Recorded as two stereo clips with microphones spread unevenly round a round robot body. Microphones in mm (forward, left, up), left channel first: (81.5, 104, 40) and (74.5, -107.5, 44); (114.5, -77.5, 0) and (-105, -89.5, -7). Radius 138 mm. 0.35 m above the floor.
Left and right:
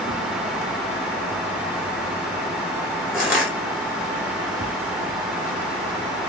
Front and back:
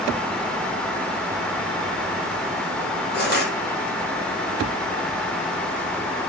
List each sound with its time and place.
3.1 s crushing: 5° right, 1.9 m